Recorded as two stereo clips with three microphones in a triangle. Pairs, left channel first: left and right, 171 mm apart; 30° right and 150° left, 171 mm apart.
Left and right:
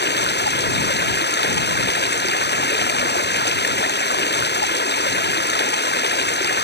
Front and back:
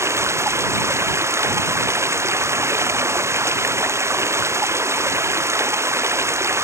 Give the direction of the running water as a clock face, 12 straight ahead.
9 o'clock.